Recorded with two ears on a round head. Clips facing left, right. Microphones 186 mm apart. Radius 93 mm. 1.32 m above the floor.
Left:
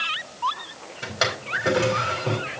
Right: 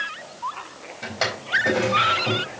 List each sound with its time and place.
1.0 s a drawer: 5° left (ahead or behind), 4.5 m